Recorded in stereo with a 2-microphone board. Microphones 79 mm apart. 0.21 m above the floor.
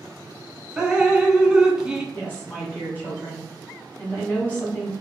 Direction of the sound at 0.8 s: 10° right (ahead or behind).